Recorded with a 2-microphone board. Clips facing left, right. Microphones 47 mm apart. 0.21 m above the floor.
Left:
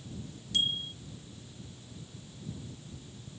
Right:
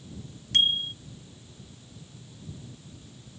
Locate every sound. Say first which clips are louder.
0.5 s a bicycle bell: right 7 dB; 55° right (ahead or behind)